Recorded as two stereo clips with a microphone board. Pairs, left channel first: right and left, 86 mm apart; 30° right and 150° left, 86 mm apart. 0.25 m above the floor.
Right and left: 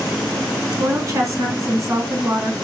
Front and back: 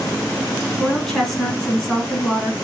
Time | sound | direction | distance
0.8 | a woman speaking | 60° left | 1.6 m